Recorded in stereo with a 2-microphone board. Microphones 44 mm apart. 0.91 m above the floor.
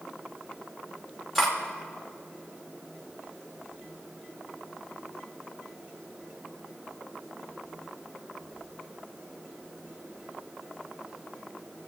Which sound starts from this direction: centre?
Cutlery clinking, at 1.4 s.